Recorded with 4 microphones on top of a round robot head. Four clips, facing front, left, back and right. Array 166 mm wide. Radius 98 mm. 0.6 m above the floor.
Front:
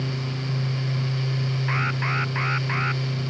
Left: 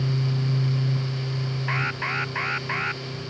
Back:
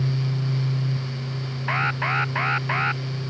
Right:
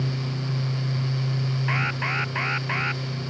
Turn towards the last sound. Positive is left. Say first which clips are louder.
# left 1 dB, back 5 dB
turn(degrees=-170)